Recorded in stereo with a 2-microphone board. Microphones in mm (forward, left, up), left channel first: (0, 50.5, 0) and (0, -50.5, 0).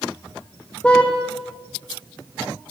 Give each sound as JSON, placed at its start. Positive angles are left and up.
{"t": 0.8, "sound": "a car horn", "side_deg": 10, "distance_m": 3.5}